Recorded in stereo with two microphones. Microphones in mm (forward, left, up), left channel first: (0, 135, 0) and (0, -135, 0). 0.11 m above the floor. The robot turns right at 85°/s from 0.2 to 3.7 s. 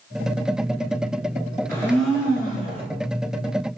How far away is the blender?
About 1.6 m.